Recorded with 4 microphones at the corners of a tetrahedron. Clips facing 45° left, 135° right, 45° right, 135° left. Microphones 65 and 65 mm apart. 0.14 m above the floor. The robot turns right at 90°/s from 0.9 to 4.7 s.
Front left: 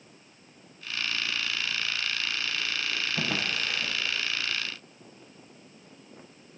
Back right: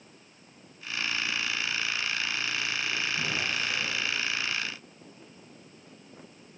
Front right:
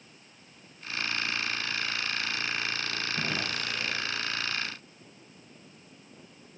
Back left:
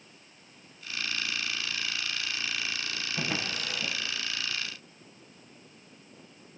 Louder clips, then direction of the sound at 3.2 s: Front left 1 dB, back left 1 dB; 50° left.